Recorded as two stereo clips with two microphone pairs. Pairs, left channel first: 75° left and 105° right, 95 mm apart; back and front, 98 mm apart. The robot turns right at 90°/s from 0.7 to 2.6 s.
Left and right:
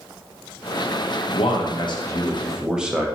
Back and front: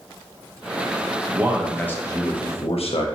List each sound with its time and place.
1.3 s a man speaking: 60° left, 0.8 m; by 3.1 s 175° left, 0.8 m